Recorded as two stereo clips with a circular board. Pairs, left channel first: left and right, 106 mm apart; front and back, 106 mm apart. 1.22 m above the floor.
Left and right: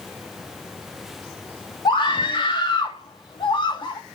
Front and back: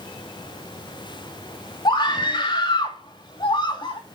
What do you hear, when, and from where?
1.9 s a scream: 45° left, 2 m